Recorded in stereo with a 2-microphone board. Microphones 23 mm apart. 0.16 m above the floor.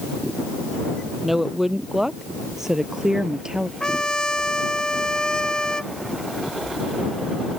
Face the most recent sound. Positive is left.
turn(degrees=35)  # may be behind; listen again after turning